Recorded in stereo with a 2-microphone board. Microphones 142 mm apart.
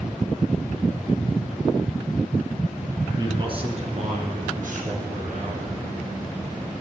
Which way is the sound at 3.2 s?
25° right (ahead or behind).